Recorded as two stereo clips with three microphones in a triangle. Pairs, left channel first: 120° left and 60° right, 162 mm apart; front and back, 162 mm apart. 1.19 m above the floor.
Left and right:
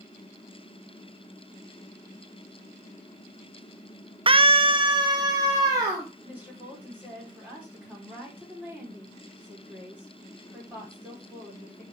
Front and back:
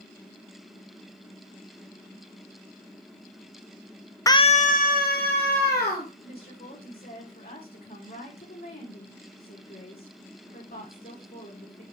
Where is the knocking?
No knocking in this recording.